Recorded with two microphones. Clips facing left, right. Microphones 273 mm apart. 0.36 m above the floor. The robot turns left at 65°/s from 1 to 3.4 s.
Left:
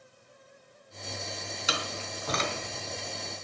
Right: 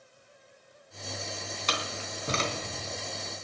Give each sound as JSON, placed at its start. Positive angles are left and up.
{"t": 1.7, "sound": "a door slam", "side_deg": 10, "distance_m": 3.0}